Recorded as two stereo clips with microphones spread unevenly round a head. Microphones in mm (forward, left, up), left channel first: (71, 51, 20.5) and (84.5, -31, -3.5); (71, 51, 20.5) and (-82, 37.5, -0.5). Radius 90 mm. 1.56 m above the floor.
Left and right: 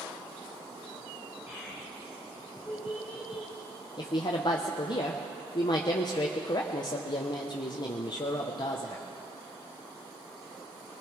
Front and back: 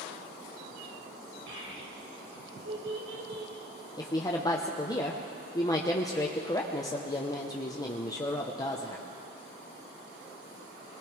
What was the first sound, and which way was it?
A child speaking, 165° right.